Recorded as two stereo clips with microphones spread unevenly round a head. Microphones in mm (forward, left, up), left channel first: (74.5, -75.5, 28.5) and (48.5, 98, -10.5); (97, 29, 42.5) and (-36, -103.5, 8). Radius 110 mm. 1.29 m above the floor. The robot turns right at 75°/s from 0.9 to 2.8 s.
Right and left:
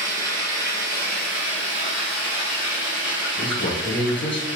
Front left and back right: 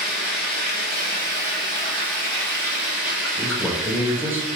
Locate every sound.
0.0 s running water: 50° left, 2 m; by 4.6 s 165° right, 2 m
3.4 s a man speaking: 55° right, 1.2 m